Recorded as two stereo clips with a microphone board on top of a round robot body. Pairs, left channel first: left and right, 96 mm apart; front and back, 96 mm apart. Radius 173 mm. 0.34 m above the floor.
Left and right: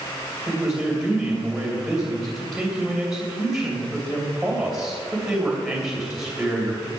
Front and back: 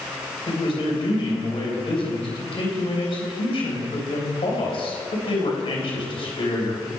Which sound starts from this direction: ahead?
A man speaking, at 0.5 s.